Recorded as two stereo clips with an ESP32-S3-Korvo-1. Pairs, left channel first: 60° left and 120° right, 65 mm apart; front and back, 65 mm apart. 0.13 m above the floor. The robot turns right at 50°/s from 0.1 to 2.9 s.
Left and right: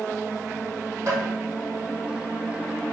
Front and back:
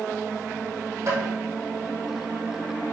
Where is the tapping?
150° right, 3.5 m; by 1.2 s 140° right, 3.5 m.